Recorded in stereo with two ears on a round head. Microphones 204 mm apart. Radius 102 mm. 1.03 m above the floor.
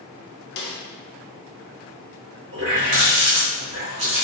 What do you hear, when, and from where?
0.6 s a snare drum: 45° left (ahead or behind), 0.6 m
2.5 s a running tap: 55° right (ahead or behind), 1.4 m